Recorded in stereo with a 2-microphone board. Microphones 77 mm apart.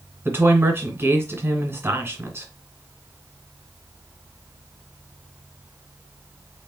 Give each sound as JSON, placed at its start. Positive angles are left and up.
{"t": 0.2, "sound": "a woman speaking", "side_deg": -30, "distance_m": 1.5}